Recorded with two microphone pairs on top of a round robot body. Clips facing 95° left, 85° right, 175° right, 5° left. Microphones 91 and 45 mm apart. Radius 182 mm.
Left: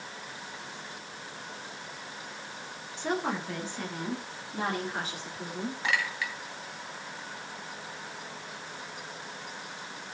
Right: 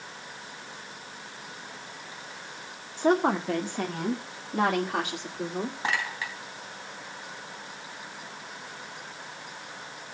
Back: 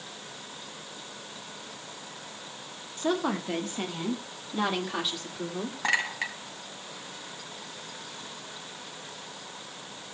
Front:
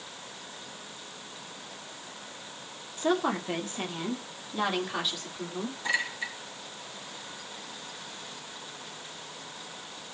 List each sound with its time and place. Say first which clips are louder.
3.0 s a woman speaking: right 8 dB, front 1 dB; 80° right, 1.8 m; by 5.8 s 95° right, 3.5 m
5.8 s a clink: even, back 3 dB; 140° right, 3 m